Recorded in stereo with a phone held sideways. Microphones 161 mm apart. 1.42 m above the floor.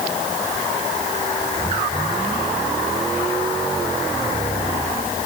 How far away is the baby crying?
No baby crying in this recording.